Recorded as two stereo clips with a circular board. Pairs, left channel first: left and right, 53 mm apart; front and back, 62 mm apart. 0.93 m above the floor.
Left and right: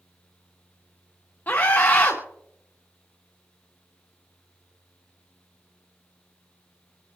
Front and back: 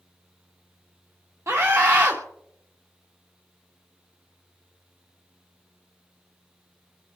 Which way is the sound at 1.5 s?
145° left.